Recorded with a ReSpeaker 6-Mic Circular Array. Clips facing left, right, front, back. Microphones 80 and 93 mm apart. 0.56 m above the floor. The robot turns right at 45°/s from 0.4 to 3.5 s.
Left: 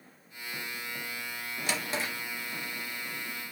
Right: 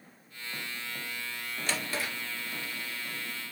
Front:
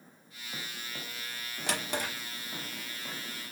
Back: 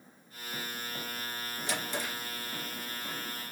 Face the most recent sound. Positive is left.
turn(degrees=95)